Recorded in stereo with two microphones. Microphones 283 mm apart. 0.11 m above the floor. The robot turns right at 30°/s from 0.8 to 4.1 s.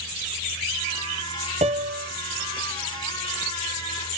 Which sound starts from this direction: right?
A piano, at 1.6 s.